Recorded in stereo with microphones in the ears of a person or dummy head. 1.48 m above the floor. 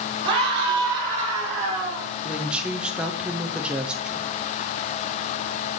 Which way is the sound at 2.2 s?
5° right (ahead or behind).